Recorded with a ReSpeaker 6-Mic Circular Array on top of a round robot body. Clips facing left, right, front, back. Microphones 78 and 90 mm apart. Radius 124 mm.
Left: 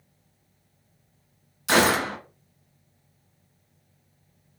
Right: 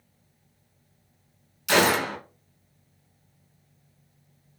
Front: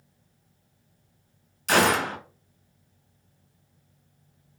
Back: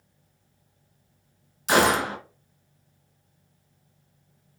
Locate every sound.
1.7 s a gunshot: 110° left, 1.5 m